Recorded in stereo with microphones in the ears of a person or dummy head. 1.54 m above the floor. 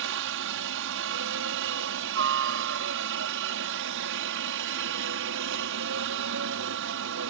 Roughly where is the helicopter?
Right.